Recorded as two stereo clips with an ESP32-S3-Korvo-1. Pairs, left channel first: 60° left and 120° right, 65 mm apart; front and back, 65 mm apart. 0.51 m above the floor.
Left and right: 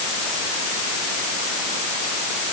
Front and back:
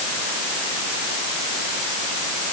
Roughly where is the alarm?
No alarm in this recording.